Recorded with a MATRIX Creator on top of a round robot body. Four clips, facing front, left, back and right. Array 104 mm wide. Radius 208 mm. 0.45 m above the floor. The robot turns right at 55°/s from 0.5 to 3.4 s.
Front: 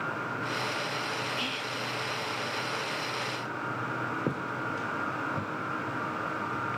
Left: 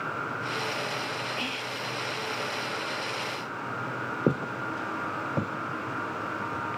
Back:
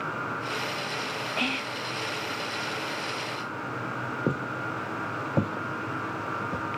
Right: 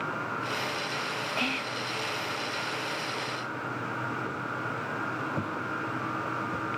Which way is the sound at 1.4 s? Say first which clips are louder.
Right 2 dB, back 3 dB; 155° right.